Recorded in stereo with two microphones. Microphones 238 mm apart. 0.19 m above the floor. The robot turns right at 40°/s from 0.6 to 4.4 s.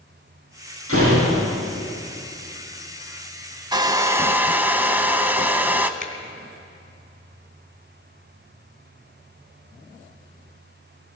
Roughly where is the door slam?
Right.